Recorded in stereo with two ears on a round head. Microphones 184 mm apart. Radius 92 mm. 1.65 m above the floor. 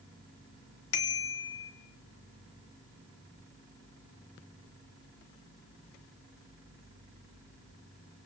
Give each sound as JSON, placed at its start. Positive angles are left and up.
{"t": 0.9, "sound": "a bicycle bell", "side_deg": 75, "distance_m": 2.5}